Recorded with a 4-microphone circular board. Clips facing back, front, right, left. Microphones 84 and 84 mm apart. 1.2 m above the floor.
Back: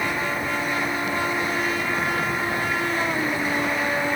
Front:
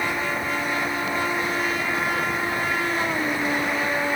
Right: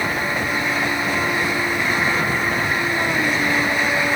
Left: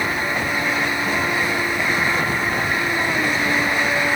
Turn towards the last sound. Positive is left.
No sound to turn to.